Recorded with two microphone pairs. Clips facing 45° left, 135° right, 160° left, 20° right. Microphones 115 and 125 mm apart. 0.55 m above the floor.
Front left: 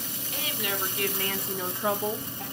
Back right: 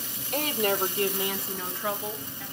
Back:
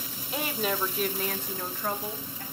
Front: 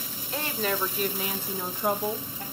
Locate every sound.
0.3 s a woman speaking: 125° right, 1.9 m; by 2.4 s 35° left, 1.7 m